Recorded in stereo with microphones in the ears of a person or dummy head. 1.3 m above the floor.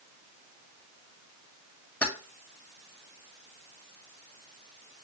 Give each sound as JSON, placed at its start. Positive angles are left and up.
{"t": 2.0, "sound": "keys jangling", "side_deg": 10, "distance_m": 2.0}